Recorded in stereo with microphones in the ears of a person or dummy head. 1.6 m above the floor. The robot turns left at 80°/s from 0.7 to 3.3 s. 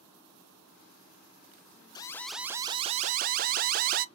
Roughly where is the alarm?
Ahead left.